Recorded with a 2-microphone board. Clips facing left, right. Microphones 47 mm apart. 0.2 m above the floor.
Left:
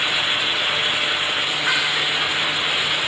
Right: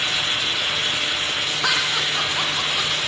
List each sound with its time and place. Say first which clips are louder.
1.6 s laughter: even; 75° right (ahead or behind), 7 m